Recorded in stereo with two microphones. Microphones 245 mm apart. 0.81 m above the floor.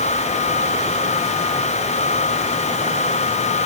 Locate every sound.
Only background noise.